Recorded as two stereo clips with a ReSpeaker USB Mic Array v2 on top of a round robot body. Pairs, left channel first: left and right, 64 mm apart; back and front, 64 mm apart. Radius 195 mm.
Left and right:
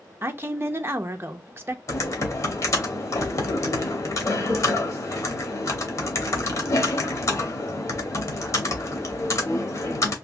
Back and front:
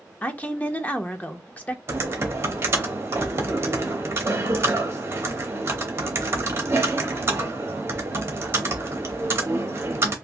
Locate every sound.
0.2 s a woman speaking: 125° right, 0.7 m
1.9 s typing on a keyboard: 50° left, 0.8 m